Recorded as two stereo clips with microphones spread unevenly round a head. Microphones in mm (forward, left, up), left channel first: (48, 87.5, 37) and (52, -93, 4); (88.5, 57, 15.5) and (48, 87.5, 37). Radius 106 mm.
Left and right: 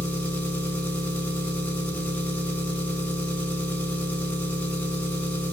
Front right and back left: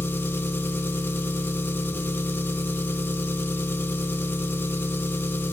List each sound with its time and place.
0.0 s an engine running: 10° left, 6 m